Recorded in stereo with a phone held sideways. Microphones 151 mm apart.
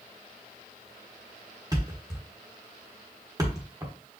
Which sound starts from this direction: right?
A thud, at 1.7 s.